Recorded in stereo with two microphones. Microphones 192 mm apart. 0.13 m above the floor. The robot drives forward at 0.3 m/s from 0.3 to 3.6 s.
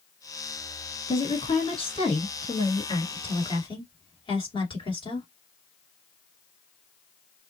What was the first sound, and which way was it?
A woman speaking, 30° left (ahead or behind).